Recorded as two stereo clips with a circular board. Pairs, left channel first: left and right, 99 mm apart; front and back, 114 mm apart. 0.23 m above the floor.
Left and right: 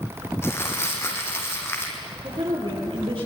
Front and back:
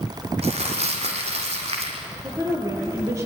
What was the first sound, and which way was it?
Crumpling, 155° left.